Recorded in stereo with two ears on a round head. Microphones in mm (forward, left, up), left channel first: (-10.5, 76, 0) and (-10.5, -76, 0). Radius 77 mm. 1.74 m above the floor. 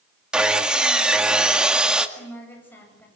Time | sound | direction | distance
0.3 | sawing | 5° right (ahead or behind) | 1.9 m
2.2 | a woman speaking | 10° left (ahead or behind) | 10 m